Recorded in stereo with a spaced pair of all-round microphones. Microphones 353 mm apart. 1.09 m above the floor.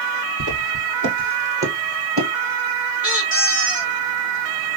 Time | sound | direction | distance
0.4 | footsteps | 55° right (ahead or behind) | 1.9 m
3.0 | a squeak | 40° right (ahead or behind) | 1.3 m